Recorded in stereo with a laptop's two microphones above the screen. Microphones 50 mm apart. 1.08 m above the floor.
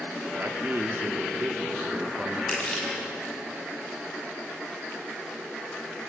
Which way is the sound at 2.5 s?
20° left (ahead or behind).